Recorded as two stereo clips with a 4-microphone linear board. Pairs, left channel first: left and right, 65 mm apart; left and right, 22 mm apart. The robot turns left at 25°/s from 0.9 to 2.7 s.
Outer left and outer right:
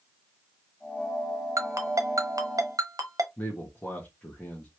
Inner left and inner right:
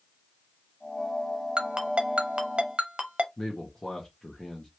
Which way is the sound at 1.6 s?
55° right (ahead or behind).